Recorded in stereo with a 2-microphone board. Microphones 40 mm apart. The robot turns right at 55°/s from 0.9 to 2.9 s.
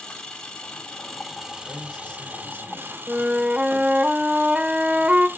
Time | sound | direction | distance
0.0 | an engine running | 160° left | 1.8 m
1.6 | a man speaking | 5° right | 2.0 m
3.1 | a flute | 25° right (ahead or behind) | 0.6 m